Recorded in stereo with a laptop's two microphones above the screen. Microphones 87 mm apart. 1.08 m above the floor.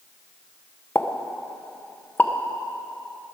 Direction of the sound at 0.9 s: 20° left (ahead or behind).